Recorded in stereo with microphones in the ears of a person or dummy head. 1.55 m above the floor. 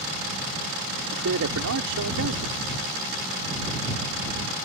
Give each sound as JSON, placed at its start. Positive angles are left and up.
{"t": 1.1, "sound": "a man speaking", "side_deg": -75}